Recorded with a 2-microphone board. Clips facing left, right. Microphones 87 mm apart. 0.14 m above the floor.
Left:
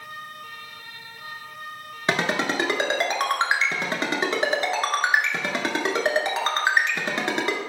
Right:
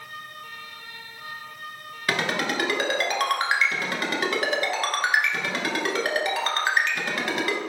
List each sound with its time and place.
2.1 s a ringtone: 25° left (ahead or behind), 0.6 m